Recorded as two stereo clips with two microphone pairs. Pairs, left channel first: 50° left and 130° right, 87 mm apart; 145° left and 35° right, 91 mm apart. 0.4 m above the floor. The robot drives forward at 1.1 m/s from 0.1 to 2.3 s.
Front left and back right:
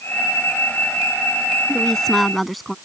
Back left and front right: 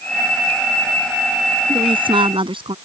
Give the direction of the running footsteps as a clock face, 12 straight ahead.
No running footsteps in this recording.